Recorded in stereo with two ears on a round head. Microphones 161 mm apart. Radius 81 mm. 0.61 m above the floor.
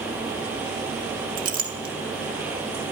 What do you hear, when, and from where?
1.4 s a clink: 50° right (ahead or behind), 1.2 m